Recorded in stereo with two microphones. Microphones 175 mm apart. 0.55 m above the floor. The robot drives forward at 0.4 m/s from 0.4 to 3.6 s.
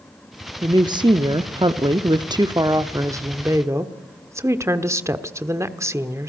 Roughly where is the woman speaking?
Right.